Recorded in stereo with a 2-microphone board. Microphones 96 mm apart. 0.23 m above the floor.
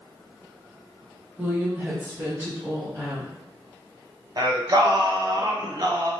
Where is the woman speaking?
15° right (ahead or behind), 1.0 m; by 3.4 s 20° right (ahead or behind), 3 m.